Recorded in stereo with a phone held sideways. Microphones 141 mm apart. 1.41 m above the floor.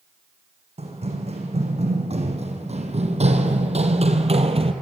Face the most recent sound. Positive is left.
turn(degrees=-45)  # may be behind; listen again after turning